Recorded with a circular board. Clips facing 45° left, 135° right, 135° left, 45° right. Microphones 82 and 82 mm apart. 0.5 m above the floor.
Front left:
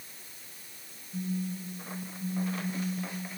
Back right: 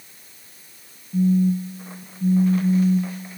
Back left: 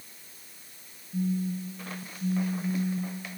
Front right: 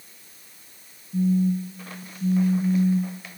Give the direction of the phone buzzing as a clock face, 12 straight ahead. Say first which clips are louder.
Back right 15 dB, front right 8 dB; 3 o'clock.